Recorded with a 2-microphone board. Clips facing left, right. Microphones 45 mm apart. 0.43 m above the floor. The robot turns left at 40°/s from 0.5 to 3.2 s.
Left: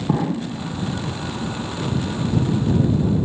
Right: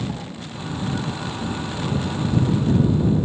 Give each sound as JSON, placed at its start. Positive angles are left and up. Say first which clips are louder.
{"t": 0.1, "sound": "an explosion", "louder": "left 10 dB", "side_deg": 45}